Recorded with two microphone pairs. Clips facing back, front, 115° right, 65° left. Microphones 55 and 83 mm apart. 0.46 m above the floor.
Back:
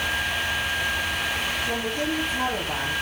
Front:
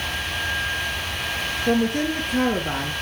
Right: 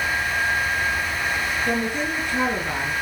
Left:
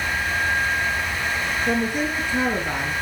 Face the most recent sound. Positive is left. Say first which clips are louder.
# front 5 dB, left 1 dB
turn(degrees=-15)